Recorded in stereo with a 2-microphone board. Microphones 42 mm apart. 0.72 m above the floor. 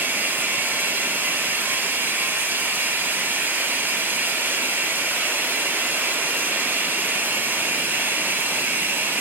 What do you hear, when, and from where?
0.0 s running water: 50° right (ahead or behind), 0.7 m